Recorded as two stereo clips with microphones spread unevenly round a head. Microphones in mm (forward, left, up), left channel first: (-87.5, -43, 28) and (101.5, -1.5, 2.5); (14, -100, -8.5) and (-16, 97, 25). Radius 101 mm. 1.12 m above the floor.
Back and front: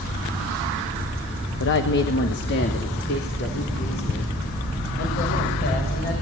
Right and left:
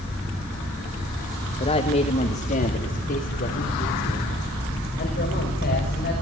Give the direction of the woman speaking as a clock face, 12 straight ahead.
5 o'clock.